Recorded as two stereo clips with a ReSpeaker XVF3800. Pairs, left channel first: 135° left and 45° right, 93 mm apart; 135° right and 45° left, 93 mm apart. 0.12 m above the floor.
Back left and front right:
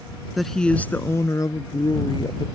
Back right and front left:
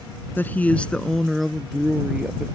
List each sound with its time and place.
0.4 s a woman speaking: 135° right; by 2.5 s 120° left